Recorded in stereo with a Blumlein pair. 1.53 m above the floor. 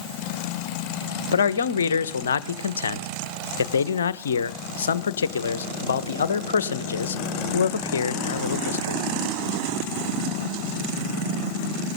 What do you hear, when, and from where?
1.3 s a man speaking: 65° left, 1.1 m